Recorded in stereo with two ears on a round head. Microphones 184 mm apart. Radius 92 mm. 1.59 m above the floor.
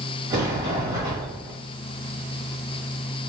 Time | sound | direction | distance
0.3 | a sliding door | 20° right (ahead or behind) | 2.5 m